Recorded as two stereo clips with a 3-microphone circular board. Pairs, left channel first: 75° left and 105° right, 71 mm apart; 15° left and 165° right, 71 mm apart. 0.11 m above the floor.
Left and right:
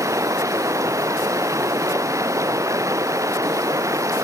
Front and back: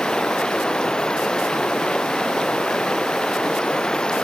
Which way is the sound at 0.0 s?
65° right.